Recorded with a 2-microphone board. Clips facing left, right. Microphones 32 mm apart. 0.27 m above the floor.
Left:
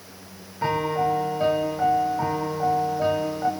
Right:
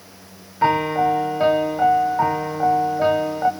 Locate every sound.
0.6 s a piano: 30° right (ahead or behind), 0.7 m